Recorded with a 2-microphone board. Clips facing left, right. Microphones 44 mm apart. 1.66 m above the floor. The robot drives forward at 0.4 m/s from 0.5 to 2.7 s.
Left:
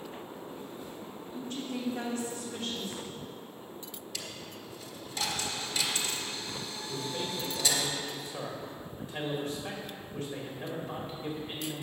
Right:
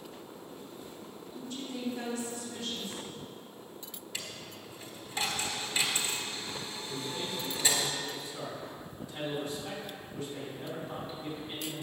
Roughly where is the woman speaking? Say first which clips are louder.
Left 3 dB; left.